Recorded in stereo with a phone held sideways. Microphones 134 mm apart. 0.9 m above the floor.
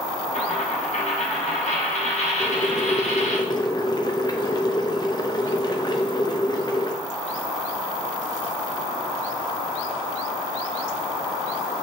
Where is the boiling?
30° left (ahead or behind), 0.7 m.